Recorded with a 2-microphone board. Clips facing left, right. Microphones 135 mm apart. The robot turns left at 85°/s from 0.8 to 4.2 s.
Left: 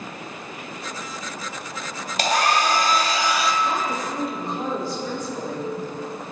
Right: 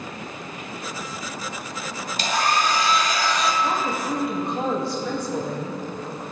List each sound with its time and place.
2.2 s a hair dryer: 110° left, 1.4 m; by 3.5 s 5° right, 1.4 m
3.6 s a woman speaking: 45° right, 3.5 m; by 5.8 s 95° right, 3.5 m